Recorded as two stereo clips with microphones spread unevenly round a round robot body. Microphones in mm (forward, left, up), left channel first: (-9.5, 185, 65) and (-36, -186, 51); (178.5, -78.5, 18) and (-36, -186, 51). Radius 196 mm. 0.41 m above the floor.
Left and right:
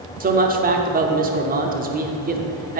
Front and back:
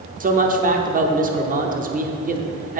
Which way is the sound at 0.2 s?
125° right.